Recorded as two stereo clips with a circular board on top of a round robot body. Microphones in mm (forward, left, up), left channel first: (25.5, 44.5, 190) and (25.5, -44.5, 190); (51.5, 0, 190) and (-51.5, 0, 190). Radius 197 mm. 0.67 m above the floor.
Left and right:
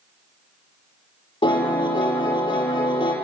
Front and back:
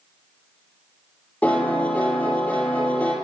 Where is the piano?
75° left, 9.5 m.